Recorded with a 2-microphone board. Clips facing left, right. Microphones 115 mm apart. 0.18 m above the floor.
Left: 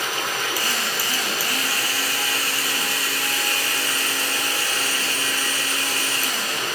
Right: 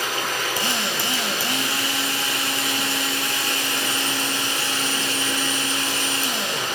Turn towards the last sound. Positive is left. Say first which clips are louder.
# right 1 dB
turn(degrees=-25)  # may be behind; listen again after turning